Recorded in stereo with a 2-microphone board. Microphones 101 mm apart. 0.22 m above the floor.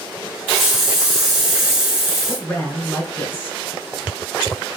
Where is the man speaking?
15° left (ahead or behind), 2.0 m.